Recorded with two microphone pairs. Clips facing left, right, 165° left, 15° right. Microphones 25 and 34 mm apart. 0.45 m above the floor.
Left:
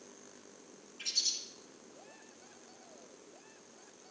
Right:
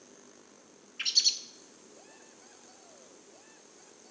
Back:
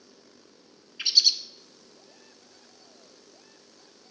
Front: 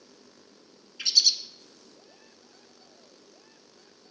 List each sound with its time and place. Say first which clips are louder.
1.0 s a bird: right 8 dB, back 1 dB; 125° right, 0.7 m